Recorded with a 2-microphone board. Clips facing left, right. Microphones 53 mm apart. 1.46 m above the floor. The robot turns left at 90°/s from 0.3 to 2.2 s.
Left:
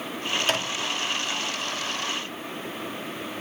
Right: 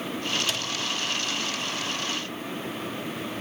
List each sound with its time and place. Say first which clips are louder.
0.4 s a microwave: left 3 dB; 35° left (ahead or behind), 2 m; by 0.9 s 75° left (ahead or behind), 2 m